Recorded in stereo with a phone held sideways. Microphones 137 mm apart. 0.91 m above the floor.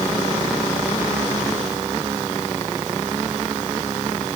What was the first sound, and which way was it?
Only background noise.